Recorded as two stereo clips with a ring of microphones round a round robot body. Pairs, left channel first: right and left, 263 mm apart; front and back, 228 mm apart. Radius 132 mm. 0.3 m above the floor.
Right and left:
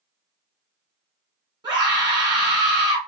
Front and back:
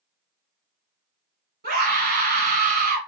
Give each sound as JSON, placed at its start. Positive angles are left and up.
{"t": 1.6, "sound": "a scream", "azimuth_deg": 155, "distance_m": 1.9}